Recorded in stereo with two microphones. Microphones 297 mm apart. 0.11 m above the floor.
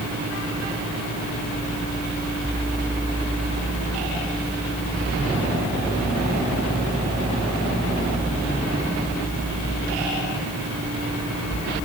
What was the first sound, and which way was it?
Only background noise.